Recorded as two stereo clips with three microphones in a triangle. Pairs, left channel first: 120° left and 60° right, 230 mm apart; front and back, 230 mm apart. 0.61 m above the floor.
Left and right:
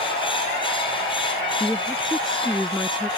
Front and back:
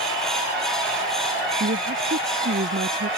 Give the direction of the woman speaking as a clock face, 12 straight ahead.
5 o'clock.